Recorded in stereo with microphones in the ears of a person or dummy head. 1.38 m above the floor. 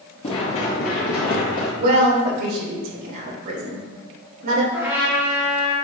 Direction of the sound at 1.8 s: 55° right (ahead or behind).